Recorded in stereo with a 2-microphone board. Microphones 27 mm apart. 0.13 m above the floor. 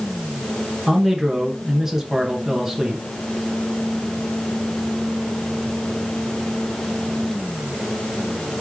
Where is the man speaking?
15° right (ahead or behind), 1.6 m.